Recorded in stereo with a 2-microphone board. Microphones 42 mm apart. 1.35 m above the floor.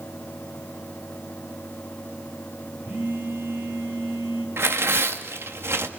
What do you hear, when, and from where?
2.9 s a phone buzzing: 55° right (ahead or behind), 5 m
4.6 s tearing paper: 75° right (ahead or behind), 1.7 m